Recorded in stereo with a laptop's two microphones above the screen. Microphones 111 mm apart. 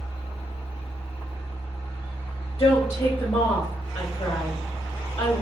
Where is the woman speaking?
55° left (ahead or behind), 1.7 m.